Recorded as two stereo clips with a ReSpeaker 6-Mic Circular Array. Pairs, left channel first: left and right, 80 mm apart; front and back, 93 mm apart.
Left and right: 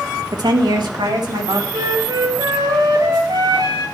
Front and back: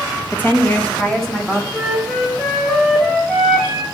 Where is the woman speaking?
65° right, 1.3 m; by 1.6 s 85° right, 2.5 m.